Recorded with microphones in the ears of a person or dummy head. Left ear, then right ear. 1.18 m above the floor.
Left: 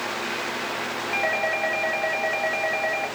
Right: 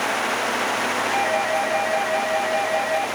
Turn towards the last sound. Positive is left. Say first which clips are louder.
# even
turn(degrees=50)  # may be behind; listen again after turning